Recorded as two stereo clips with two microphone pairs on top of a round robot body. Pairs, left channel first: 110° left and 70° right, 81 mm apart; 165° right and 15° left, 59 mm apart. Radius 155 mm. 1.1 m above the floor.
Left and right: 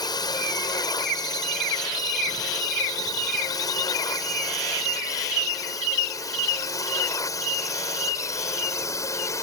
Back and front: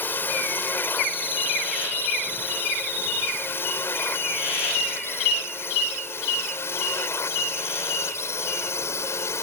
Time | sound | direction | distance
0.0 | a drone | 140° left | ?